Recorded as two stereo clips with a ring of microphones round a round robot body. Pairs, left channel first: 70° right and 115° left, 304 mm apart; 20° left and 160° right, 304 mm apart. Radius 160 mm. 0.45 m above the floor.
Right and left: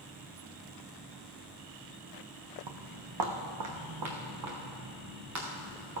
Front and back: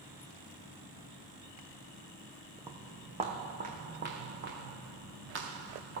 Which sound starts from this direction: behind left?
Footsteps, at 2.7 s.